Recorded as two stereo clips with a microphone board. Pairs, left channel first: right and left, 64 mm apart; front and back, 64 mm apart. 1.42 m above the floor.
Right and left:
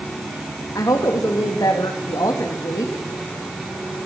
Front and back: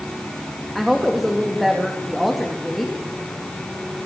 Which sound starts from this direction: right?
A woman speaking, at 0.8 s.